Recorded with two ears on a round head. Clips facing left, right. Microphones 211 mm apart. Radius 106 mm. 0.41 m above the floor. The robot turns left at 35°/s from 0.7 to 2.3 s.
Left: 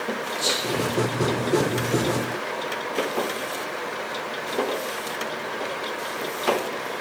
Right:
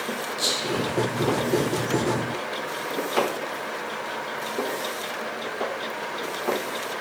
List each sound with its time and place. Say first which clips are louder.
0.4 s whispering: even; 20° right (ahead or behind), 1.0 m; by 2.0 s 35° right (ahead or behind), 1.0 m